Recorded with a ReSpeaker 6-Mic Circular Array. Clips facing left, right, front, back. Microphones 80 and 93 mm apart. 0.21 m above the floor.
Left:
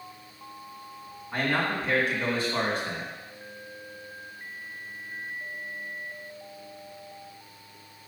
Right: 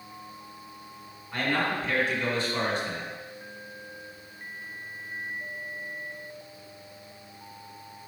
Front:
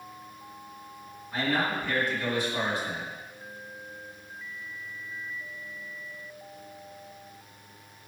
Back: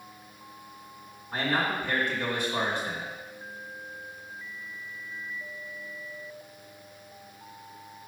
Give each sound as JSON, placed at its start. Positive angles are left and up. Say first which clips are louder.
{"t": 1.3, "sound": "a man speaking", "louder": "even, even", "azimuth_deg": 140, "distance_m": 1.8}